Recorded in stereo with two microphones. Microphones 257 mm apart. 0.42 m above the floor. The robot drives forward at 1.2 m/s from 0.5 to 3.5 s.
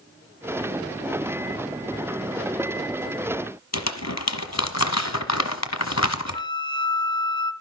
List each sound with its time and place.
3.7 s crumpling: 80° left, 1.3 m
6.3 s a flute: 15° left (ahead or behind), 0.9 m